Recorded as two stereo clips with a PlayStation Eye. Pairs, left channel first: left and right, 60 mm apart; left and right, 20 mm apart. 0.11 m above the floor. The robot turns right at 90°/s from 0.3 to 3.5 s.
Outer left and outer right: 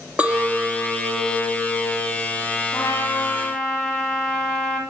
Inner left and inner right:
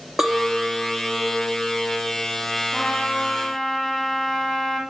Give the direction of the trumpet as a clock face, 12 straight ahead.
9 o'clock.